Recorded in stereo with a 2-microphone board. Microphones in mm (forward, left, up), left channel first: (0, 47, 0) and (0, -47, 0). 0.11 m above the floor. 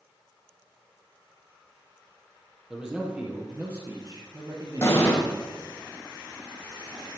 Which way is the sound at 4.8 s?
30° left (ahead or behind).